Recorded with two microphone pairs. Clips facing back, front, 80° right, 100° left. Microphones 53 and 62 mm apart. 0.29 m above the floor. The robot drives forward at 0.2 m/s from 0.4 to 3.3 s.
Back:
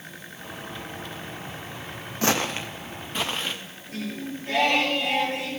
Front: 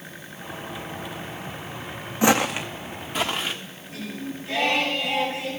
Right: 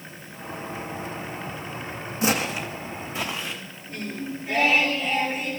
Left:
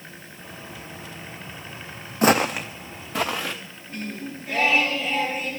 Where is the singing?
165° right, 5.5 m.